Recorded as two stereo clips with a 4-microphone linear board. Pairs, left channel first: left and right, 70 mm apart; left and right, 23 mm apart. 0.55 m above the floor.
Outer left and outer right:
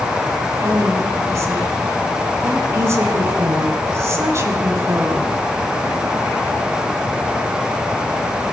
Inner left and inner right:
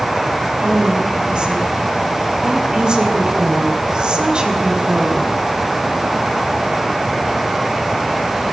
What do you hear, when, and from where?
0.6 s a woman speaking: 45° right (ahead or behind), 1.9 m